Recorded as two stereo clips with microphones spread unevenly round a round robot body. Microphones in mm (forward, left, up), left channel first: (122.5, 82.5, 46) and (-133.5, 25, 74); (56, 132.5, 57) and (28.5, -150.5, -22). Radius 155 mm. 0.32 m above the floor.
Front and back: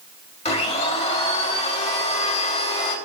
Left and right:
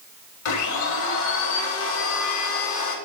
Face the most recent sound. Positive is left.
turn(degrees=70)